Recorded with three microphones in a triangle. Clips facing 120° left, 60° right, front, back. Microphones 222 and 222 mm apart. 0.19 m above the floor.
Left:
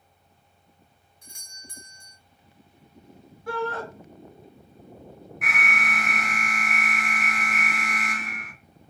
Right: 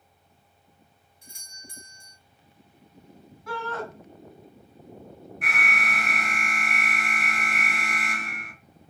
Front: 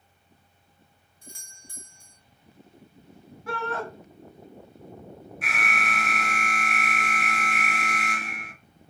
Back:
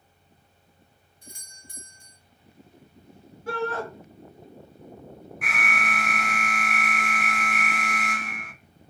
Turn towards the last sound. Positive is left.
turn(degrees=-40)